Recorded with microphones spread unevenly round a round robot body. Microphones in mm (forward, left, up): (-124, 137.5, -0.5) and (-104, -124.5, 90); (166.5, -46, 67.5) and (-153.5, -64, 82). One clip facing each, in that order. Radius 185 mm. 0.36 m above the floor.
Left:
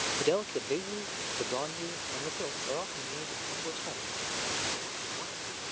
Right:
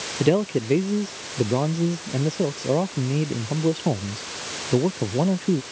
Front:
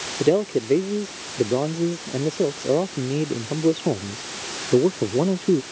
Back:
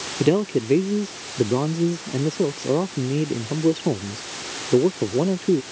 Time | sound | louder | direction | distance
0.2 | a man speaking | right 10 dB, even | 110° right | ?